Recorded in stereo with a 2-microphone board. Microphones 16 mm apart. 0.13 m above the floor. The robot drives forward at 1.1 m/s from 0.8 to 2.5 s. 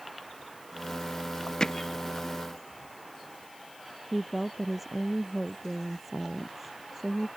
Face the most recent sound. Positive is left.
turn(degrees=-10)  # may be behind; listen again after turning